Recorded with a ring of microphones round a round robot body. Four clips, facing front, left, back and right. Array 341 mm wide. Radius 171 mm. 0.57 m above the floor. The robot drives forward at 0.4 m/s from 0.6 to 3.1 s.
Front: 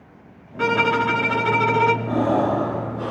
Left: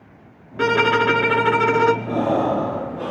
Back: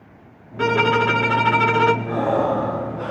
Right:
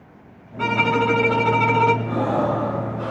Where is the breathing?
60° left, 5 m; by 3.1 s 65° left, 5 m.